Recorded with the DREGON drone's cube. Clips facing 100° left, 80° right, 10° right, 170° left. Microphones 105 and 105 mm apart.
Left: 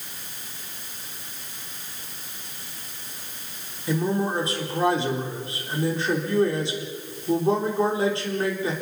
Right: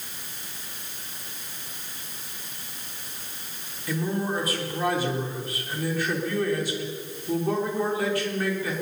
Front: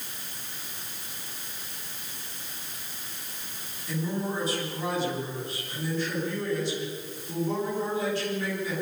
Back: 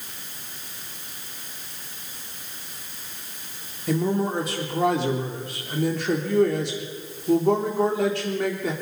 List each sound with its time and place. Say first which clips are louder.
3.9 s a man speaking: left 3 dB, back 7 dB; 165° left, 3.5 m